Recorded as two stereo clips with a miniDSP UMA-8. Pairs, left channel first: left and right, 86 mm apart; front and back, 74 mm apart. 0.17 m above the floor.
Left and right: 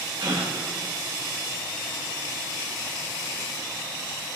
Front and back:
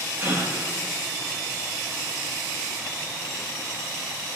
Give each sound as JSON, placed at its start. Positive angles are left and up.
{"t": 0.2, "sound": "a gasp", "azimuth_deg": -120, "distance_m": 5.0}